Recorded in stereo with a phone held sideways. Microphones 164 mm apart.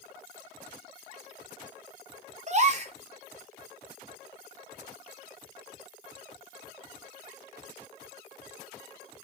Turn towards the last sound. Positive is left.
turn(degrees=-45)  # may be behind; listen again after turning